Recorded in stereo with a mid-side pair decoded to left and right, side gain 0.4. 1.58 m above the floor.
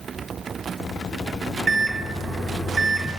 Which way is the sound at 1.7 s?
45° right.